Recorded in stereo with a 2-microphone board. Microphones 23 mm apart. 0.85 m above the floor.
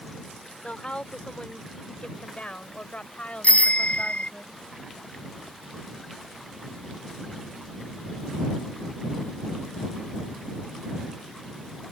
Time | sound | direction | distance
0.6 | a woman speaking | 55° left (ahead or behind) | ?
3.4 | a bicycle bell | 80° left | ?